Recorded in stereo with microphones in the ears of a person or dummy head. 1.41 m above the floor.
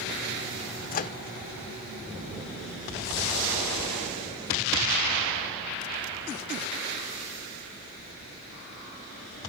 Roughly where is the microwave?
Left.